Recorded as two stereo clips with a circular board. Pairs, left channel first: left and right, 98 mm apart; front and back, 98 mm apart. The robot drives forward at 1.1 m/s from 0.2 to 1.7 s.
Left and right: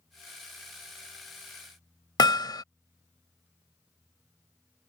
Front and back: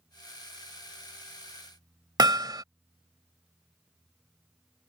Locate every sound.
2.2 s hammering: 135° left